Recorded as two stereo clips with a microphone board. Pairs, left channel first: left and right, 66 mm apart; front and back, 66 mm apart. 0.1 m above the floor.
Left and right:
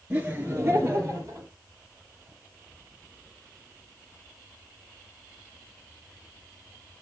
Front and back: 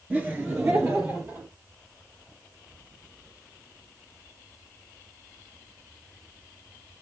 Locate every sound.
0.1 s laughter: 135° right, 1.7 m